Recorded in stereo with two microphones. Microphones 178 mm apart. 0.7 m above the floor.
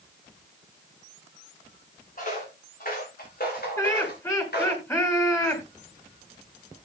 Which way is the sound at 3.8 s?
15° left (ahead or behind).